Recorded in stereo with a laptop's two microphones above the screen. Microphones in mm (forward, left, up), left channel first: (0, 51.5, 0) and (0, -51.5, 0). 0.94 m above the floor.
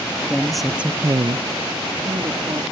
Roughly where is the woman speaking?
Centre.